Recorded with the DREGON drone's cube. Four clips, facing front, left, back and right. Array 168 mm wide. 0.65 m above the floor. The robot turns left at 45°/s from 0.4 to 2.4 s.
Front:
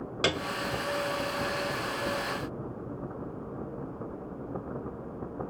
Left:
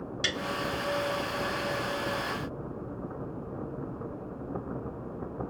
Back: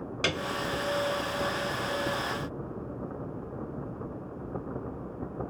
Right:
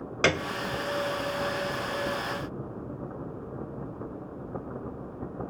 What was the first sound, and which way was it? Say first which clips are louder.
A piano: right 10 dB, front 2 dB; 70° right.